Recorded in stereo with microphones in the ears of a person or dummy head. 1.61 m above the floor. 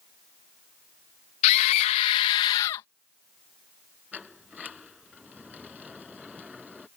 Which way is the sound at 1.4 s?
55° left (ahead or behind).